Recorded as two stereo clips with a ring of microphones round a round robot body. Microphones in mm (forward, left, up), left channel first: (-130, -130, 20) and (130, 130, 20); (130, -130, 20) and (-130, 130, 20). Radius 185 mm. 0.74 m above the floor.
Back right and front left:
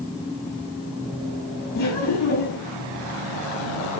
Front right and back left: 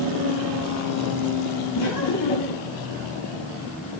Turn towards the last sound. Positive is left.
turn(degrees=-85)